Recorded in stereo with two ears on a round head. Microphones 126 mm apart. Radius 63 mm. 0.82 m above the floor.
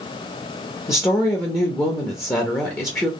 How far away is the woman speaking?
About 0.7 m.